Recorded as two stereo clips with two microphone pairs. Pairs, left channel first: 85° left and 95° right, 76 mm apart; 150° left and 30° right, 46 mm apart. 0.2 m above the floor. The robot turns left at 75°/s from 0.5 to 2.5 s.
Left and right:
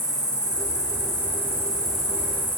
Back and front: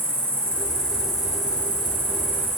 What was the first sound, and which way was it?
An insect, 100° left.